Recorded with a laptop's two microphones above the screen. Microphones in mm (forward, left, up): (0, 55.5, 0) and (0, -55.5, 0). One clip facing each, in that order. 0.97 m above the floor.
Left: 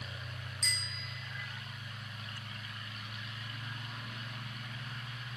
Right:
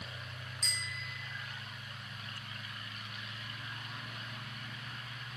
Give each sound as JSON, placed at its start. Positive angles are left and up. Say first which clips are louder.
{"t": 0.6, "sound": "a bicycle bell", "louder": "even", "side_deg": -5, "distance_m": 5.5}